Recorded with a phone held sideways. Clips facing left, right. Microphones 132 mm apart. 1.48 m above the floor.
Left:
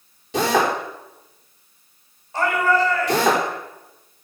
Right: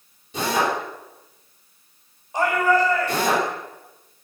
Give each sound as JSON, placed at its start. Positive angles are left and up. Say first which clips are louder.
{"t": 0.3, "sound": "a drill", "louder": "left 3 dB", "side_deg": 90, "distance_m": 4.5}
{"t": 2.3, "sound": "a shout", "louder": "even", "side_deg": -15, "distance_m": 6.5}